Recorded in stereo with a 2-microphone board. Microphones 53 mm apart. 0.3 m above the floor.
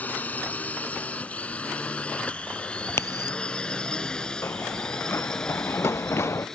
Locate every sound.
0.0 s a drone: 30° left (ahead or behind); by 6.6 s 10° left (ahead or behind)
2.9 s a crack: 55° left (ahead or behind)
4.4 s running footsteps: 50° left (ahead or behind); by 6.5 s 55° left (ahead or behind)